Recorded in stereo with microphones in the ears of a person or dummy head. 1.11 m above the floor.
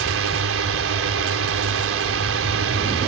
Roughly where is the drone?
Right.